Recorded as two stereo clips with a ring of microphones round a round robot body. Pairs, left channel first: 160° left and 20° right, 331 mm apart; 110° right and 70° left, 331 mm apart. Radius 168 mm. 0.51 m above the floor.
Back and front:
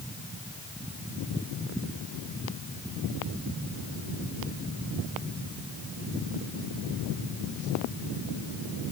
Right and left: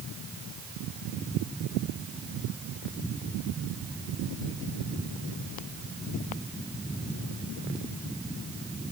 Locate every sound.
Only background noise.